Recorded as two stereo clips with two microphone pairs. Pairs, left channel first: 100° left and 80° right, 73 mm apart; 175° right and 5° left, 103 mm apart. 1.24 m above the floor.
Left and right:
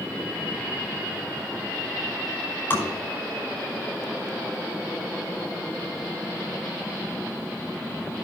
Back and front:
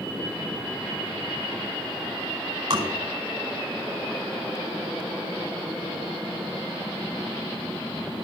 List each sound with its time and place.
2.7 s tapping: 35° left, 5 m